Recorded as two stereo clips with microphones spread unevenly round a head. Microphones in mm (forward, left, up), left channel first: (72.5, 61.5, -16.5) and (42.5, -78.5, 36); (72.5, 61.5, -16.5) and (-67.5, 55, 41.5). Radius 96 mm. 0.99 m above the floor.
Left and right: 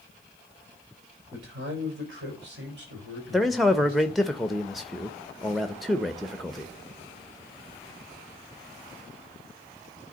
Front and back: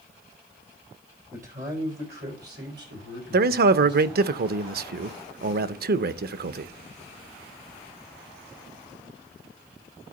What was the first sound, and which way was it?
A man speaking, 125° right.